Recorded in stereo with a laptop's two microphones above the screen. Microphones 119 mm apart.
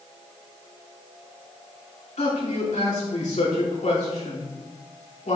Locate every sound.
2.2 s a man speaking: 80° left, 3 m